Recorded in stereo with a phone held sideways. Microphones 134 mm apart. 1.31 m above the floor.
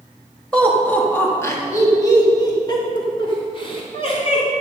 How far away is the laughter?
About 2 m.